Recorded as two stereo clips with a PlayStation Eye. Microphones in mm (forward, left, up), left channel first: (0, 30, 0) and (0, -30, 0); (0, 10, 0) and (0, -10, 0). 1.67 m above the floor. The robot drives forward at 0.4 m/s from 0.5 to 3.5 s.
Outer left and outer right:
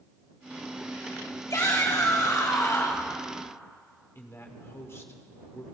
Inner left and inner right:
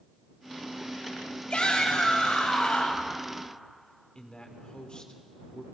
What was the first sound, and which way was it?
A shout, 70° left (ahead or behind).